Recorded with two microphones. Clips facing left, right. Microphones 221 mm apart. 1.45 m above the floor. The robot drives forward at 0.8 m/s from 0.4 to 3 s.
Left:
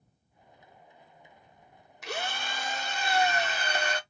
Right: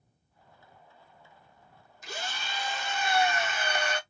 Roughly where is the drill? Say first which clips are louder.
Left 4 dB; left.